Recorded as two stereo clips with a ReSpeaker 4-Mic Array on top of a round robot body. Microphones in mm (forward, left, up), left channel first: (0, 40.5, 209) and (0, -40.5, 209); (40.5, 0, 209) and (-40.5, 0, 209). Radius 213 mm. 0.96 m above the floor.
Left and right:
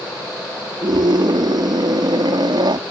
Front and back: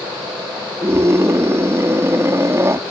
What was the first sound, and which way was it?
A scream, 120° right.